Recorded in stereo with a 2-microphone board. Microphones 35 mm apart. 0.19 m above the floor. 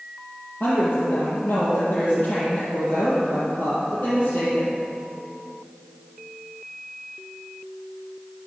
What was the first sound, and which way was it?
A woman speaking, 65° left (ahead or behind).